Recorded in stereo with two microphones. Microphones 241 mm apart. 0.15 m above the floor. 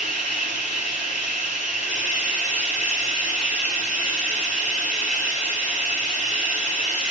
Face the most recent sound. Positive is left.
turn(degrees=25)  # may be behind; listen again after turning